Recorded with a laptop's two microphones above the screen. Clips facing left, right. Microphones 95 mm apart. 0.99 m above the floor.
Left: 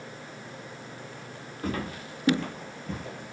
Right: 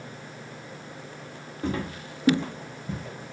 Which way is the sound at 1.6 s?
25° right (ahead or behind).